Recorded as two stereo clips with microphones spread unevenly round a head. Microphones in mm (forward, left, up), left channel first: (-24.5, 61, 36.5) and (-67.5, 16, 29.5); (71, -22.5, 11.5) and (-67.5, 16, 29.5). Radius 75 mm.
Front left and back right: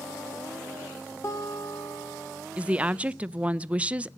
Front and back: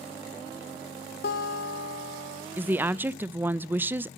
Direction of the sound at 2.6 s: 120° right.